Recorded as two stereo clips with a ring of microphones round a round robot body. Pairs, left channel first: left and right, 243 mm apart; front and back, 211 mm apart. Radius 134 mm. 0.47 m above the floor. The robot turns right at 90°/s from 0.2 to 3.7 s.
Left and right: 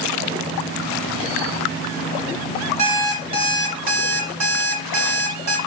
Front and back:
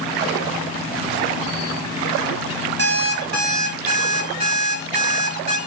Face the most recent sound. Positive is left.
turn(degrees=-125)